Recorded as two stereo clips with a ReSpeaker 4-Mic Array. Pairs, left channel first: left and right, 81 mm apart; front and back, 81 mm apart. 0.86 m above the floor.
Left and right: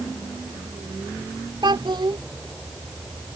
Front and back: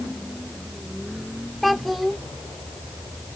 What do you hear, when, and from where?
1.6 s a child speaking: 90° right